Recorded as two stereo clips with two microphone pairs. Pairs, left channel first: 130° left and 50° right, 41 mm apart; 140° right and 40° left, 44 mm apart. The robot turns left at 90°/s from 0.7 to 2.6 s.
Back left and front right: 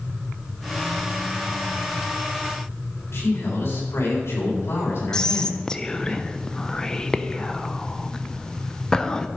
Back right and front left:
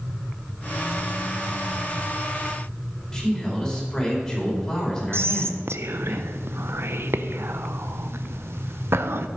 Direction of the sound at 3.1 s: 140° left.